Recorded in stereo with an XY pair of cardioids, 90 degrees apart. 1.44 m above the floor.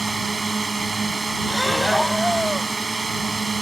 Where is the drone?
25° right.